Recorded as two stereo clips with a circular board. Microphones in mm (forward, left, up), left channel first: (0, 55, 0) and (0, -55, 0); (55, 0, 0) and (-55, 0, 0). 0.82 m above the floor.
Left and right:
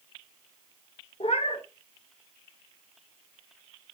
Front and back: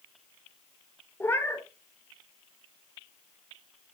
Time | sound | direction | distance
1.2 | a cat meowing | 70° left | 0.9 m